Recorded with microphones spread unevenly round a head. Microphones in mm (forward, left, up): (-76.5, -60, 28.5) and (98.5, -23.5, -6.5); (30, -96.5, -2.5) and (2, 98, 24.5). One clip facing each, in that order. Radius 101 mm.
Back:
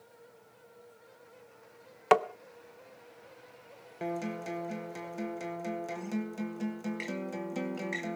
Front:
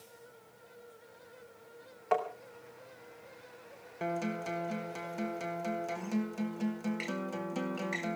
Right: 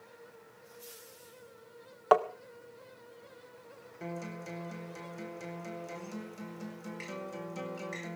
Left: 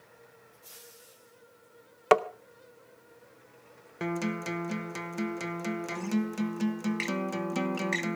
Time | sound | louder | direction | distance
2.1 | tapping | back 6 dB, left 2 dB | 160° left | 0.6 m
4.0 | a guitar | even, left 9 dB | 105° left | 1.3 m